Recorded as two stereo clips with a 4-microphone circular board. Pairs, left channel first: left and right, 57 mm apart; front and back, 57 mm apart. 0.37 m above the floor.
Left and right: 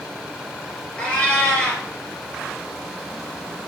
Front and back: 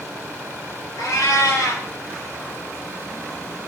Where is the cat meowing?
20° left, 1.9 m.